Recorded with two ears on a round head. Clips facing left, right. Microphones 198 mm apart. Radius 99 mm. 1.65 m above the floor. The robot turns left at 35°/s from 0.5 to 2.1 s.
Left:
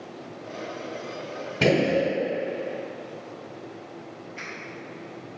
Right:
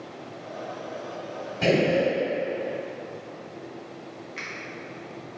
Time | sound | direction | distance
1.6 | a gunshot | 75° left (ahead or behind) | 0.8 m
4.4 | a finger snap | 70° right (ahead or behind) | 1.4 m